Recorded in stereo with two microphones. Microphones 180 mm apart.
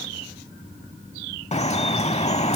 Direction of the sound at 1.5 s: 35° left (ahead or behind).